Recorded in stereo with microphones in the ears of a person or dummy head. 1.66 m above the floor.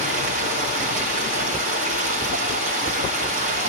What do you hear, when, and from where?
0.0 s running water: 45° right (ahead or behind), 1.1 m